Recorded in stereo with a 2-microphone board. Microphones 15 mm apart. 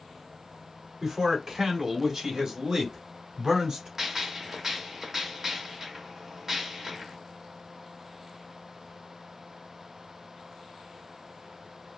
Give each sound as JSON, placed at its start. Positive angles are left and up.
{"t": 1.0, "sound": "a man speaking", "side_deg": -35, "distance_m": 1.8}
{"t": 4.0, "sound": "a gunshot", "side_deg": -30, "distance_m": 1.3}